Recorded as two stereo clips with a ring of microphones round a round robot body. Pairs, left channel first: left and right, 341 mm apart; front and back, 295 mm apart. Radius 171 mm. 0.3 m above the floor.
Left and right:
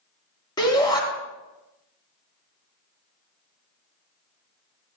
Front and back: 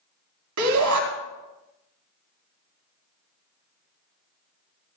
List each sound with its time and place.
0.6 s a shout: 165° left, 2.5 m